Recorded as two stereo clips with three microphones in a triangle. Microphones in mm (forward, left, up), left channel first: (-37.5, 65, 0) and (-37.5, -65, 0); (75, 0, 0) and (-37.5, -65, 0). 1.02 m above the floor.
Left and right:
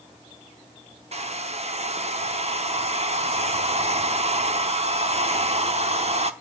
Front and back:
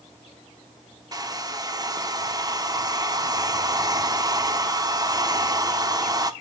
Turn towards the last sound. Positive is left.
turn(degrees=-95)